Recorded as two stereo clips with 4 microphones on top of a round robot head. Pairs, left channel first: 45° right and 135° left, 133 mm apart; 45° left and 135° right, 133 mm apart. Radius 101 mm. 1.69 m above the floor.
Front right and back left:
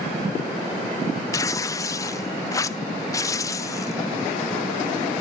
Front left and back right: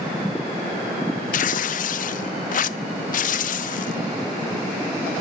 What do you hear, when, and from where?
1.3 s tearing paper: 25° left, 0.5 m